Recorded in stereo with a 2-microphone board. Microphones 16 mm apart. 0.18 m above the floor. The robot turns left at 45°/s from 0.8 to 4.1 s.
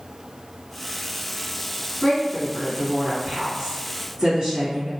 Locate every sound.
2.0 s a woman speaking: 20° left (ahead or behind), 2.0 m; by 4.9 s 40° right (ahead or behind), 2.0 m